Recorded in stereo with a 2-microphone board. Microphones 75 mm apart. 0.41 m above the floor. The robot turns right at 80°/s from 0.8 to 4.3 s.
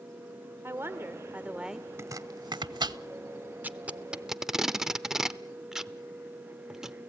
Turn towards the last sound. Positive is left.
turn(degrees=-5)  # may be behind; listen again after turning